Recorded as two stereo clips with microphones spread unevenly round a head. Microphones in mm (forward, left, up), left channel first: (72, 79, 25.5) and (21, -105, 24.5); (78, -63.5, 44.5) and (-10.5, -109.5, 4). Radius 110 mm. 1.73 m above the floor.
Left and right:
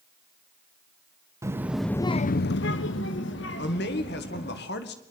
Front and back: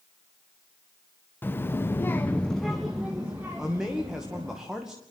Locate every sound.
1.4 s a child speaking: 30° right, 1.1 m; by 4.6 s 125° left, 3 m
3.6 s a man speaking: 120° left, 2 m